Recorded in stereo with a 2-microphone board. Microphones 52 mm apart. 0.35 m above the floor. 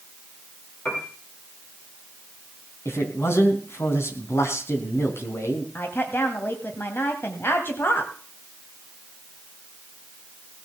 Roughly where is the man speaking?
Left.